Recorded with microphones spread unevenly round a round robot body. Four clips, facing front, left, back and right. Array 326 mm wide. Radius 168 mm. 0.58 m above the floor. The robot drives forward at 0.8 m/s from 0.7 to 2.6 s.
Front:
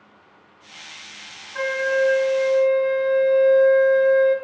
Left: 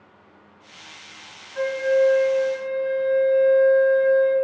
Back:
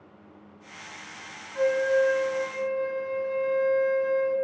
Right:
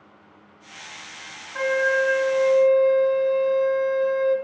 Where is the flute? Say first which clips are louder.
Left 2 dB, front 1 dB; 45° right, 0.9 m; by 4.3 s 115° right, 0.7 m.